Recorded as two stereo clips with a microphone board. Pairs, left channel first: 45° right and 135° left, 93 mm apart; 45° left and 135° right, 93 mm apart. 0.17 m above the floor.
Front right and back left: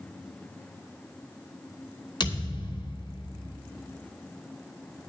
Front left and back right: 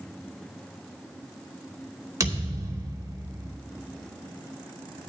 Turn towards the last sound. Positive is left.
turn(degrees=-75)